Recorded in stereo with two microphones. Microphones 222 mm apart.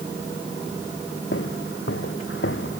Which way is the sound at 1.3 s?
75° left (ahead or behind).